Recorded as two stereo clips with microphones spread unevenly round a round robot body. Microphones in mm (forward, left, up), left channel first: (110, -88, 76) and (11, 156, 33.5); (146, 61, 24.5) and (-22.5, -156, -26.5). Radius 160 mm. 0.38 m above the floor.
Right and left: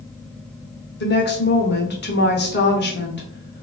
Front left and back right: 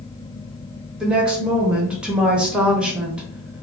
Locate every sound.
1.0 s a woman speaking: 65° right, 0.9 m